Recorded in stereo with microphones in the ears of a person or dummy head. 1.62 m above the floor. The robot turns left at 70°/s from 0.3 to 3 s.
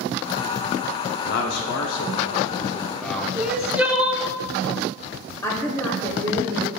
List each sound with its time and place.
1.2 s a man speaking: 120° left, 0.6 m; by 3.3 s straight ahead, 0.6 m
3.4 s crying: 15° right (ahead or behind), 0.7 m
5.4 s a woman speaking: 10° left (ahead or behind), 1.0 m